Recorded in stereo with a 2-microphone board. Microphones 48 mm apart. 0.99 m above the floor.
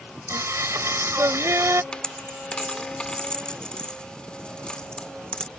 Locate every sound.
0.3 s singing: 65° right (ahead or behind)
1.9 s a dropped coin: 20° left (ahead or behind)